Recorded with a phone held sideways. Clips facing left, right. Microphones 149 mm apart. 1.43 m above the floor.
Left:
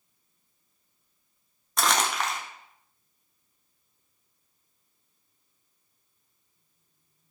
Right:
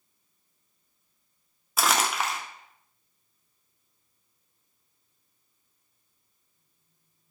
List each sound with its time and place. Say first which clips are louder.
1.8 s crumpling: even; 5° right (ahead or behind), 0.5 m